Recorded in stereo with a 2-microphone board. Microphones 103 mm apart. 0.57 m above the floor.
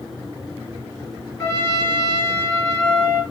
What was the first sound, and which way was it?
A trumpet, 30° left (ahead or behind).